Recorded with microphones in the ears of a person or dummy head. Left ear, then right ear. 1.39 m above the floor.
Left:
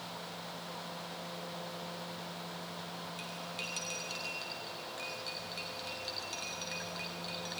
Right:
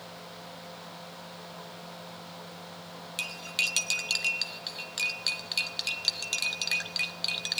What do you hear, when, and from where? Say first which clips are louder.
3.2 s cutlery clinking: right 14 dB; 35° right (ahead or behind), 0.6 m